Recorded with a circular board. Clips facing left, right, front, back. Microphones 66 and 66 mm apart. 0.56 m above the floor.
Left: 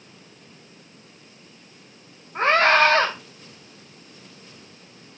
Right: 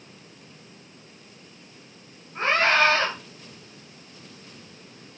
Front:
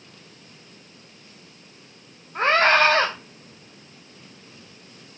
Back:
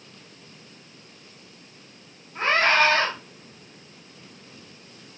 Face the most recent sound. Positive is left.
turn(degrees=45)